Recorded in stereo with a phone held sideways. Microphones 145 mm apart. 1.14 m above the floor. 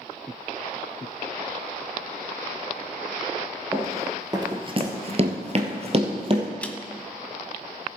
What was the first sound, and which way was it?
Running footsteps, 15° right (ahead or behind).